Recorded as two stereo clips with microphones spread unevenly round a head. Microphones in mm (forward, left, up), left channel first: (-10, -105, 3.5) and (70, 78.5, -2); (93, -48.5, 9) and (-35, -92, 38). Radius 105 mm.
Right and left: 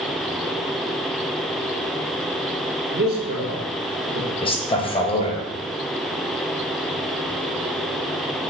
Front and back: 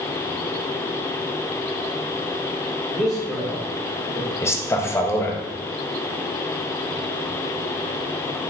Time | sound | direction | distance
2.9 | a man speaking | 100° left | 0.7 m
4.4 | a man speaking | 50° right | 0.8 m